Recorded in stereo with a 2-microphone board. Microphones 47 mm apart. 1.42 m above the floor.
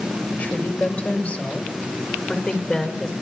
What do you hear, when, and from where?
0.3 s a woman speaking: 40° left (ahead or behind), 5.5 m; by 3.1 s 15° left (ahead or behind), 4.5 m